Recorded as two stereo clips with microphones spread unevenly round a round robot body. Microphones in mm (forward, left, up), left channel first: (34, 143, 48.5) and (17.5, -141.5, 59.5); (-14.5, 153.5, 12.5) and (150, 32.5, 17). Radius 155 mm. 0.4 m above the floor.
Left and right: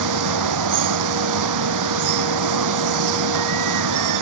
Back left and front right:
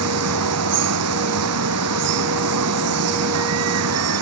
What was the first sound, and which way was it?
Running water, 70° right.